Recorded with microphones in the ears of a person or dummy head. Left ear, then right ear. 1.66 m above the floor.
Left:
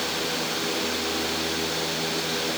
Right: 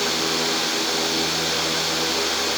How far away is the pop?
I don't hear a pop.